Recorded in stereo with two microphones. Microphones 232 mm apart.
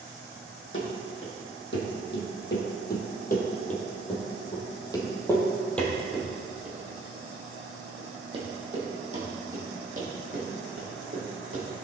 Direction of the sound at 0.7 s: 60° left (ahead or behind).